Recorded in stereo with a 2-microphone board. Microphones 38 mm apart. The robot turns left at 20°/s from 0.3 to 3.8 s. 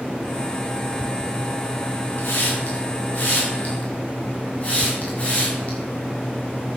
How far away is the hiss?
About 5.5 m.